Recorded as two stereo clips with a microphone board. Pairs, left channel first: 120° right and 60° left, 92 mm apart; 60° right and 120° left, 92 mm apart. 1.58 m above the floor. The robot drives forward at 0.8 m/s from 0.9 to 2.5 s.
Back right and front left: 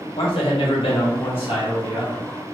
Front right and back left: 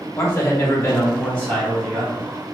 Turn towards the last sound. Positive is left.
turn(degrees=-155)